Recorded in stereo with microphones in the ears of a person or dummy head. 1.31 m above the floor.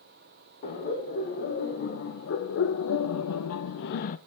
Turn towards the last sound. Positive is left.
turn(degrees=40)  # may be behind; listen again after turning